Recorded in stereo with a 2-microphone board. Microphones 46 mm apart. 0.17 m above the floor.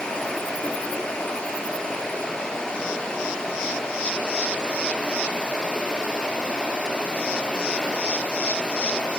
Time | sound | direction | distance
0.0 | running water | 20° left (ahead or behind) | 1.0 m